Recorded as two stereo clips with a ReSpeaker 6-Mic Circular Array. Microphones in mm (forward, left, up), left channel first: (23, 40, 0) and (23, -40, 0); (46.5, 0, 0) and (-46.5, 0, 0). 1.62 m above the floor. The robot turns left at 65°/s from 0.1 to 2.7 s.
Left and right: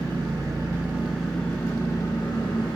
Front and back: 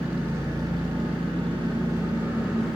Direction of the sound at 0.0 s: 105° right.